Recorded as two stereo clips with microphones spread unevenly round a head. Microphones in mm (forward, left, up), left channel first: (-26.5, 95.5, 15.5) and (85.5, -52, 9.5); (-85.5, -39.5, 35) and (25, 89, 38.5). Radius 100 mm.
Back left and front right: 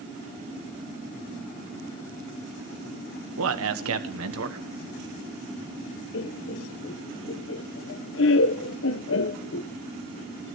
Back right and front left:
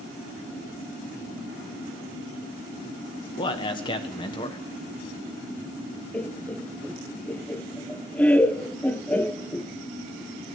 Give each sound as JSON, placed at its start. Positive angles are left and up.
{"t": 3.4, "sound": "a man speaking", "azimuth_deg": -65, "distance_m": 1.3}
{"t": 6.1, "sound": "laughter", "azimuth_deg": 145, "distance_m": 0.7}